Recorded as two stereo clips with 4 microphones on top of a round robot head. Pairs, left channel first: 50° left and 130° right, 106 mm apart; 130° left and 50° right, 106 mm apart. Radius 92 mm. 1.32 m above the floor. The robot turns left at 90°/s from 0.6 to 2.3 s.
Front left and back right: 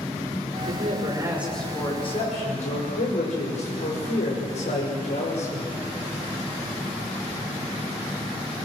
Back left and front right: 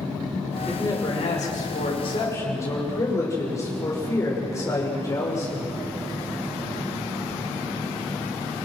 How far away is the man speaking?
About 6.5 m.